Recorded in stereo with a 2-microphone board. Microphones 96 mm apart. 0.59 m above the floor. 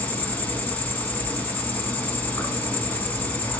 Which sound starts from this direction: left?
An insect, at 0.0 s.